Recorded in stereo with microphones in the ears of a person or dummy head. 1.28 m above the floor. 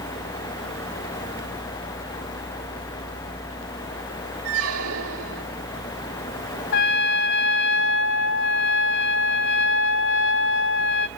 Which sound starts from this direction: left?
A trumpet, at 6.7 s.